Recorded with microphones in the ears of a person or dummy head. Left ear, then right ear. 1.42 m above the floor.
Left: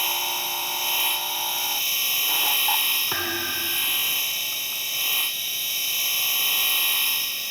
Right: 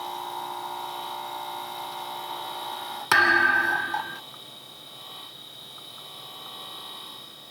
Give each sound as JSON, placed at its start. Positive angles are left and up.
{"t": 0.0, "sound": "a machine running", "side_deg": 70}
{"t": 3.1, "sound": "a thud", "side_deg": -60}